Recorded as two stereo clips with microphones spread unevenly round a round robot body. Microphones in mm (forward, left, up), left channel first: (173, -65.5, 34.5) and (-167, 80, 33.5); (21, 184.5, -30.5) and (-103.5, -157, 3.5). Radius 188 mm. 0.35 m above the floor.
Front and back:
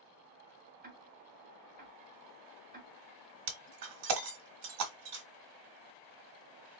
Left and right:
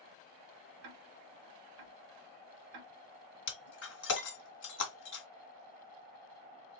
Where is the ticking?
135° right, 1.0 m.